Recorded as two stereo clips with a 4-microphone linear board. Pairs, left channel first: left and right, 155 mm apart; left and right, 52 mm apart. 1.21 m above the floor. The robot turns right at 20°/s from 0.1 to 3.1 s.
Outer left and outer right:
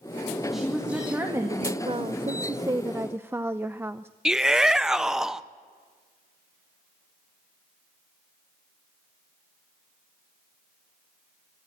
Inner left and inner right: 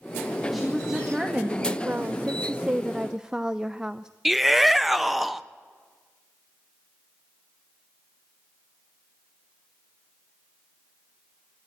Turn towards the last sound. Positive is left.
turn(degrees=-5)  # may be behind; listen again after turning